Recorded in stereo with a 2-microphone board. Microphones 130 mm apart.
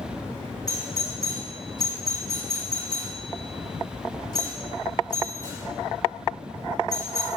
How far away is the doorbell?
About 4 m.